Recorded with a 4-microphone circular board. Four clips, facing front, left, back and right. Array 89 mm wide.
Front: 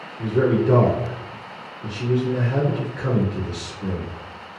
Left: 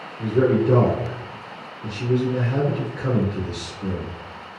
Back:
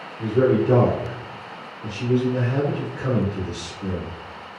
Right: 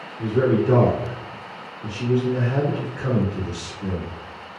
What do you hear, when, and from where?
0.2 s a man speaking: 65° right, 1.4 m